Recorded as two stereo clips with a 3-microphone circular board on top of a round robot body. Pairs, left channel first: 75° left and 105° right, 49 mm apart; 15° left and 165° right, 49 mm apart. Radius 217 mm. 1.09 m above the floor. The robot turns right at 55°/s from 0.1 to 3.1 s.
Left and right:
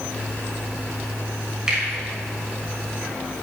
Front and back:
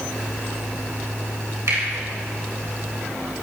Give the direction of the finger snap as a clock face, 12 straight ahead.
6 o'clock.